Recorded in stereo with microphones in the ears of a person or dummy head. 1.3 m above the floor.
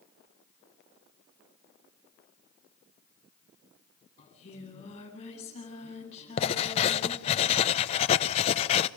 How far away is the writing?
About 0.9 m.